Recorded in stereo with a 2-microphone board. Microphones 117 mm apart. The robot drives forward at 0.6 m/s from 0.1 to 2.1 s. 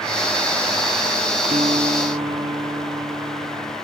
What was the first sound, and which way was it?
A guitar, 80° right.